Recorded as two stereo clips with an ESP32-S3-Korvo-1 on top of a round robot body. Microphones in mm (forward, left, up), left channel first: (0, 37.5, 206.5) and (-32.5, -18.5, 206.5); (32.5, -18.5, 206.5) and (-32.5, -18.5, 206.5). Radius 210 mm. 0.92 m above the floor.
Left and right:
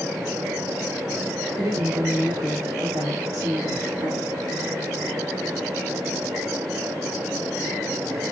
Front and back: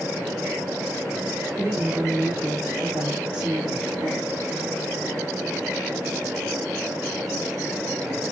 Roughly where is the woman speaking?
Behind right.